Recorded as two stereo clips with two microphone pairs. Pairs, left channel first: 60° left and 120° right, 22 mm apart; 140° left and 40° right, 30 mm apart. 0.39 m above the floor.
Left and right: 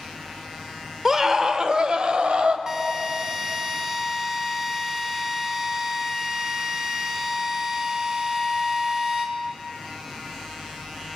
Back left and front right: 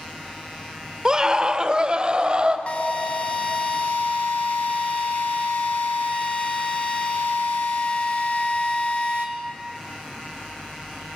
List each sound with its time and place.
1.1 s a scream: 75° right, 1.5 m; by 2.6 s 95° right, 2.5 m
2.7 s a drill: straight behind, 3.5 m